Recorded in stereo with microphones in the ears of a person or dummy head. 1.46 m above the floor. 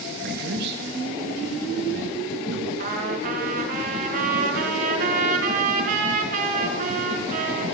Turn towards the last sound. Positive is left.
turn(degrees=-45)  # may be behind; listen again after turning